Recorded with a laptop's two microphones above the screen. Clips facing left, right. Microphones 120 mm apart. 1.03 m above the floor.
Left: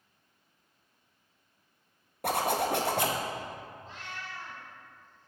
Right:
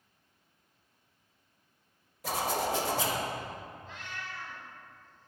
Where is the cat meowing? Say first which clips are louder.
Even; 35° left (ahead or behind), 1.7 m.